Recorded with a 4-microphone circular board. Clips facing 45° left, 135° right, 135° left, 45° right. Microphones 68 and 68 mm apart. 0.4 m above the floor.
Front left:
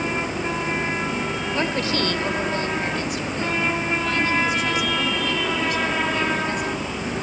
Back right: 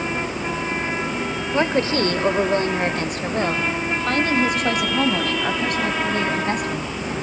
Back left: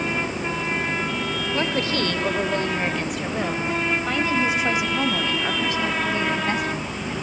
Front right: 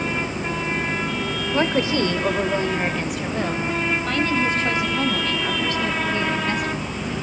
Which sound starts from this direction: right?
A woman speaking, at 1.5 s.